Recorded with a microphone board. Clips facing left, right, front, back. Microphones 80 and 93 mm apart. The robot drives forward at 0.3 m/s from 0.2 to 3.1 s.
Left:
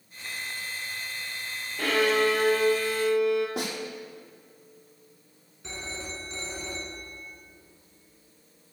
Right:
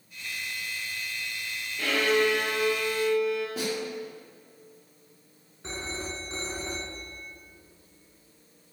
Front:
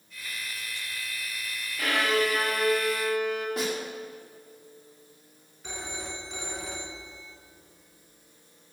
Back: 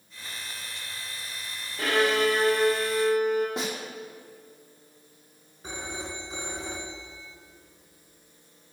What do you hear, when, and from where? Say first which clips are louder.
1.8 s a violin: left 1 dB, back 2 dB; 125° left, 4 m; by 3.5 s 130° left, 4 m
3.6 s a snare drum: right 2 dB, front 2 dB; 115° left, 4.5 m
5.6 s a phone ringing: right 3 dB, back 2 dB; 130° right, 1.7 m